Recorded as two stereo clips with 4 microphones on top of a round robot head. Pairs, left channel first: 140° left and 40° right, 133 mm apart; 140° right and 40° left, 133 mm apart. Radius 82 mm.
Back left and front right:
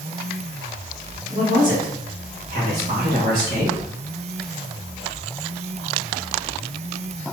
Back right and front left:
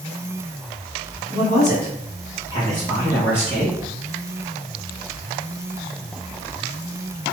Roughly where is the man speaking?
Right.